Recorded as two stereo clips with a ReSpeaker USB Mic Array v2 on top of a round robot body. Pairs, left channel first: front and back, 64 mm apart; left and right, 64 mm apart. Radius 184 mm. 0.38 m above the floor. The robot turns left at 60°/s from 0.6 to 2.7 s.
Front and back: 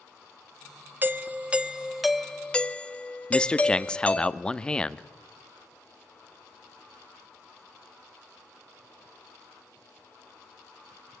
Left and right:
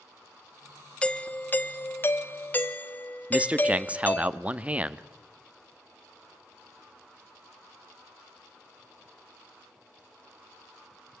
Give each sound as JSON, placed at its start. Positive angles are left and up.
{"t": 1.0, "sound": "a doorbell", "azimuth_deg": 155, "distance_m": 1.4}
{"t": 3.3, "sound": "a man speaking", "azimuth_deg": -55, "distance_m": 1.2}